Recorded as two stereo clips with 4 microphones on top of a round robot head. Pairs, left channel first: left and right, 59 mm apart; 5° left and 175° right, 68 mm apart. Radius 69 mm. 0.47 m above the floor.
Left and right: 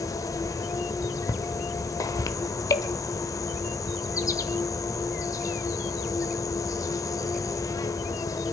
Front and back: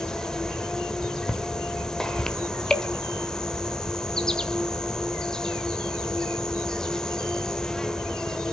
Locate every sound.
0.0 s an insect: 85° left, 1.5 m